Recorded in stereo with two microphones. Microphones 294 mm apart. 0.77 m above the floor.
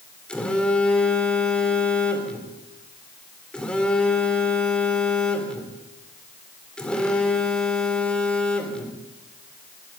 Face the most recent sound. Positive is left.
turn(degrees=5)  # may be behind; listen again after turning